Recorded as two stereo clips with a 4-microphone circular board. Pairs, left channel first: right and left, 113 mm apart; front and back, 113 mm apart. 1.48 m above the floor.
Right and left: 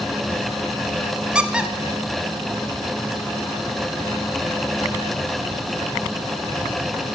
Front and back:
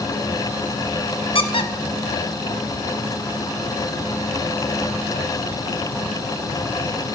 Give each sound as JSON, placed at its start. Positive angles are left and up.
{"t": 1.4, "sound": "a squeak", "azimuth_deg": 10, "distance_m": 0.9}